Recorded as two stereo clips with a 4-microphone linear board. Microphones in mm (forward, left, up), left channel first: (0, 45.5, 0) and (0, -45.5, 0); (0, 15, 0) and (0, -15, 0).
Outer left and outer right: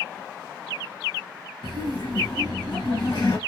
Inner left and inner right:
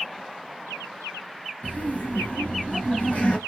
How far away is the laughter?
About 2.5 m.